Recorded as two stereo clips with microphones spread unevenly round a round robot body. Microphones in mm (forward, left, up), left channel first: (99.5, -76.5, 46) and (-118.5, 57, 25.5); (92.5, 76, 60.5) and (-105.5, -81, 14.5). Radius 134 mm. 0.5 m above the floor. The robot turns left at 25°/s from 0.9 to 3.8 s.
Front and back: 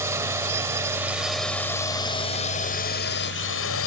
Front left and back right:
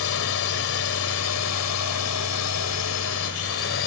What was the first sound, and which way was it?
A drone, 70° left.